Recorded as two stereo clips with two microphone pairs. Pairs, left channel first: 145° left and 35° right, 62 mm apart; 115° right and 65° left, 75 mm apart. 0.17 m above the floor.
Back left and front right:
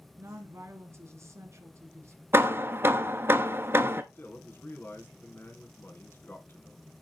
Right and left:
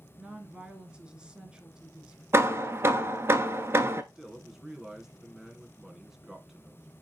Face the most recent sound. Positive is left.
turn(degrees=145)